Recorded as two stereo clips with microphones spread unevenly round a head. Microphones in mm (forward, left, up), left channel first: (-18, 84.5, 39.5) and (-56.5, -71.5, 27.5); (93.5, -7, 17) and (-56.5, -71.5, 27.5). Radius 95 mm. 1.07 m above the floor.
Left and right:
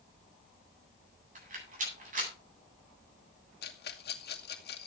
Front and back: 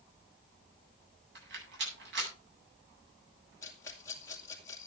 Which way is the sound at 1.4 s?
145° right.